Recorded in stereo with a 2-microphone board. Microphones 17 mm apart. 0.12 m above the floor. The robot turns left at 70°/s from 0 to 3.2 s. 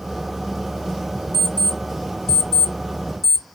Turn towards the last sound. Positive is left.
turn(degrees=-25)  # may be behind; listen again after turning